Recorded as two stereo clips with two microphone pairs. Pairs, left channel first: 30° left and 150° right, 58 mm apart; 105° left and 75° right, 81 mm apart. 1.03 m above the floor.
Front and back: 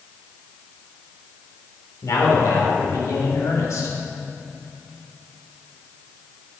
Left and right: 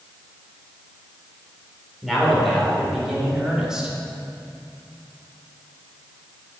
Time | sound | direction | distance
2.0 | a man speaking | 15° left | 3 m